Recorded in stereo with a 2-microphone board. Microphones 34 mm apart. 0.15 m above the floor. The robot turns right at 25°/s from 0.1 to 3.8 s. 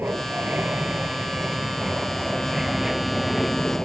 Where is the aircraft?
85° right; by 3.9 s 10° left.